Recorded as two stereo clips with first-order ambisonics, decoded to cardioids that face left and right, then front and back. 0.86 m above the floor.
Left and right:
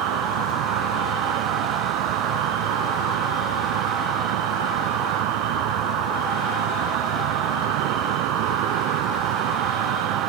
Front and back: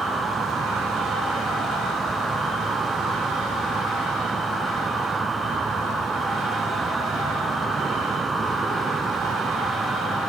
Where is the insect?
100° right.